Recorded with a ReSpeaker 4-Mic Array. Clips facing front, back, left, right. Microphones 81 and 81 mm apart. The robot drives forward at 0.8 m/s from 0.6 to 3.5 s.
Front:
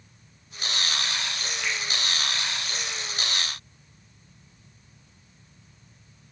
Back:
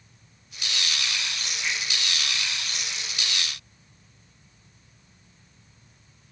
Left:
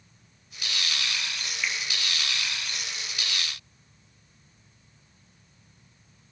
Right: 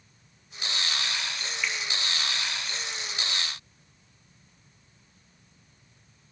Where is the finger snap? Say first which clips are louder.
Even, even; 5° left, 3.5 m.